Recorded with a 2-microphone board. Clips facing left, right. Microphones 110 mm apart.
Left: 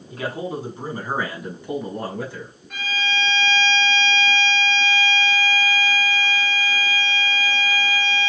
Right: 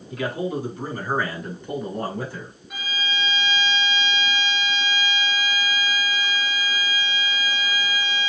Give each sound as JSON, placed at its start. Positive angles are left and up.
{"t": 0.1, "sound": "a man speaking", "side_deg": 40, "distance_m": 1.8}
{"t": 2.7, "sound": "a violin", "side_deg": -10, "distance_m": 1.6}